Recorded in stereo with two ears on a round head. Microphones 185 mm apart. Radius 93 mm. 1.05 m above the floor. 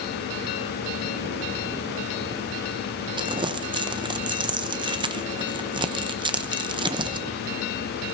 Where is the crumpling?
25° right (ahead or behind), 0.6 m.